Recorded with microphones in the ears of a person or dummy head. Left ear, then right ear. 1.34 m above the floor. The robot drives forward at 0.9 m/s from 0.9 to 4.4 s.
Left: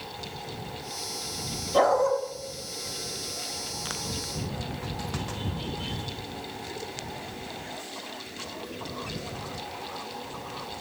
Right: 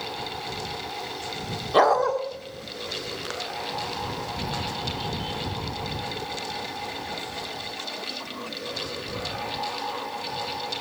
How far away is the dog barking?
About 1.6 m.